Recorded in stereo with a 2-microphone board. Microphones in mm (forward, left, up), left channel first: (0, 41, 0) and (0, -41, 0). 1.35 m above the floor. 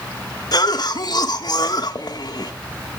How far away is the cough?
About 1.8 m.